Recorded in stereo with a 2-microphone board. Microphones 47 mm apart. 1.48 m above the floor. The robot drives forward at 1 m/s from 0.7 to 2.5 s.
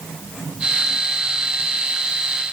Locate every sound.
Only background noise.